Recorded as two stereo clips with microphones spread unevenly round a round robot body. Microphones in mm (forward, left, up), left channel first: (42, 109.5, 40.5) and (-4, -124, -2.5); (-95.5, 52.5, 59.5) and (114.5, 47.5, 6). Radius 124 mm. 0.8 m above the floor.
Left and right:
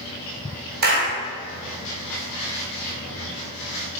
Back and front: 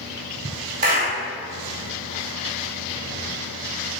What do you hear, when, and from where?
0.8 s a clap: 55° right, 2 m